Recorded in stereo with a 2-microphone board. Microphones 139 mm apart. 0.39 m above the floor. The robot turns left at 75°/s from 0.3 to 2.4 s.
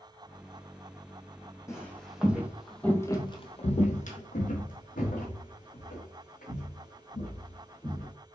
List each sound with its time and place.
1.7 s footsteps: 20° left (ahead or behind), 1.0 m; by 8.1 s 70° left (ahead or behind), 3 m